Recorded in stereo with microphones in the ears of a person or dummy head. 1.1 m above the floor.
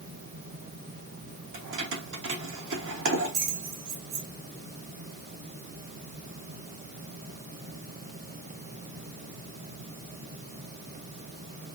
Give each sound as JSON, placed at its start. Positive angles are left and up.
{"t": 1.5, "sound": "keys jangling", "side_deg": -75, "distance_m": 1.1}